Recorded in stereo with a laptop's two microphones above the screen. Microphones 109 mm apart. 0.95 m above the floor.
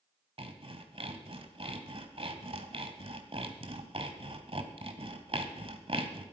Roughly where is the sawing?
Right.